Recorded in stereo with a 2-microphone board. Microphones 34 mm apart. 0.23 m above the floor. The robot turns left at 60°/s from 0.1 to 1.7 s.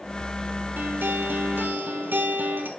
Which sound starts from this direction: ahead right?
A guitar, at 0.8 s.